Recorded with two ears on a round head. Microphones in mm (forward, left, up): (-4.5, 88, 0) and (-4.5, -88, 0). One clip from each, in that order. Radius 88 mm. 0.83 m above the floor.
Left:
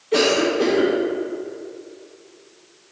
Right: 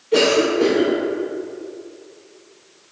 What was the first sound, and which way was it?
A cough, 20° left (ahead or behind).